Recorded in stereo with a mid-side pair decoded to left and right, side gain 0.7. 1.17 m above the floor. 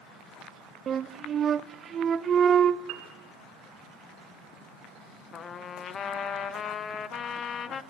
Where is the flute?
35° right, 0.6 m.